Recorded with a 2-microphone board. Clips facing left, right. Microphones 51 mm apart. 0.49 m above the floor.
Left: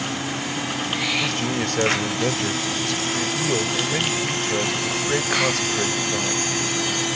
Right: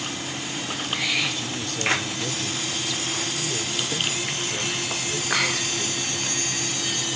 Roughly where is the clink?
I don't hear a clink.